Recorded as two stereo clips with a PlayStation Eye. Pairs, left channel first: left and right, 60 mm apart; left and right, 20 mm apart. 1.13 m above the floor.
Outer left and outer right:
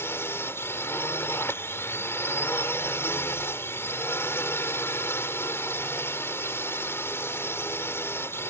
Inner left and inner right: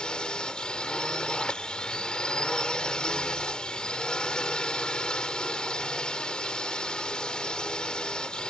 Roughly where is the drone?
Left.